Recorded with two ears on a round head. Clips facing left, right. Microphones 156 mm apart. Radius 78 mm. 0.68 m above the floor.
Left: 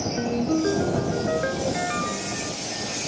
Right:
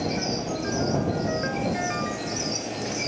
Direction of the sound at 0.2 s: 50° left (ahead or behind).